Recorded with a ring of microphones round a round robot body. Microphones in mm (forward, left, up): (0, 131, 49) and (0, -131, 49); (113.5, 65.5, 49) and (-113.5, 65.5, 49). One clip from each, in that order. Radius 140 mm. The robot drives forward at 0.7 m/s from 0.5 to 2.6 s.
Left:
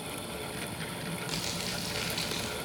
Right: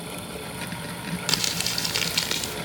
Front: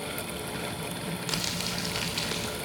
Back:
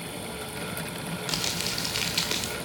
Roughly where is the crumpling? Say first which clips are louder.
Right 11 dB, back 2 dB; right.